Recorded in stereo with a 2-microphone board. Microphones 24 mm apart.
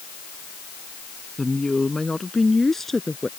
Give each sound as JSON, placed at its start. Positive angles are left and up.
{"t": 1.4, "sound": "a woman speaking", "side_deg": 15}